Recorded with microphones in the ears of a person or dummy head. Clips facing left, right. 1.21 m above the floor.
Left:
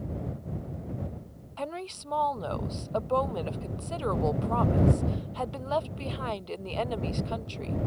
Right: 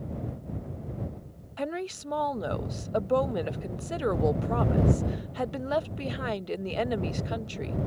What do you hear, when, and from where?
1.6 s a woman speaking: 10° right (ahead or behind)